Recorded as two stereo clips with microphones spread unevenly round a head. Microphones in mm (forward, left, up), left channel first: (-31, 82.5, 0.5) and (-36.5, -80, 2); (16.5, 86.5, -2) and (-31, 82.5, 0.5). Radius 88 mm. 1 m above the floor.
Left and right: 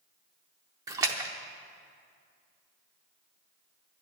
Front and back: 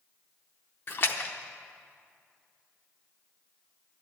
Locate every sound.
0.9 s a splash: 25° right, 0.7 m